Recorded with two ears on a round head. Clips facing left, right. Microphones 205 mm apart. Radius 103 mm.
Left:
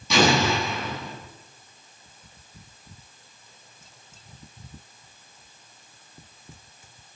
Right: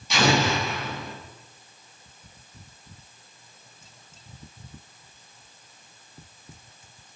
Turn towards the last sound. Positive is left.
turn(degrees=75)  # may be behind; listen again after turning